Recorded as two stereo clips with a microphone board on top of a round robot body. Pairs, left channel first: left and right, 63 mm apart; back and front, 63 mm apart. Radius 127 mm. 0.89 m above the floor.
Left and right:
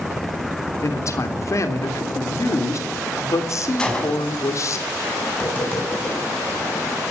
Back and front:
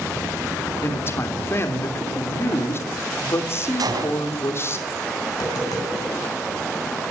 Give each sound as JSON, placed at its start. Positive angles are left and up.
{"t": 0.8, "sound": "a man speaking", "azimuth_deg": 130, "distance_m": 3.5}
{"t": 3.8, "sound": "a gunshot", "azimuth_deg": 15, "distance_m": 5.5}
{"t": 5.3, "sound": "tapping", "azimuth_deg": 160, "distance_m": 9.5}